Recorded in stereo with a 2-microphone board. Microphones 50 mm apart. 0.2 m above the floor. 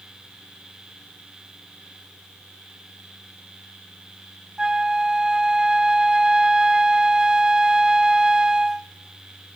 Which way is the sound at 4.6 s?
15° right (ahead or behind).